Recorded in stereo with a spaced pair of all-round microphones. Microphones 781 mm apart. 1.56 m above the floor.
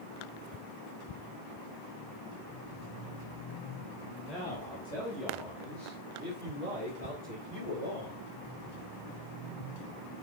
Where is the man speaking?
15° left (ahead or behind), 3 m; by 8.2 s 25° right (ahead or behind), 6 m.